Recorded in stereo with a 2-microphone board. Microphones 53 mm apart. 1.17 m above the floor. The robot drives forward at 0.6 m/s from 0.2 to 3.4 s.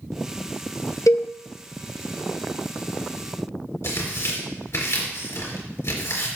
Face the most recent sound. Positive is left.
turn(degrees=55)  # may be behind; listen again after turning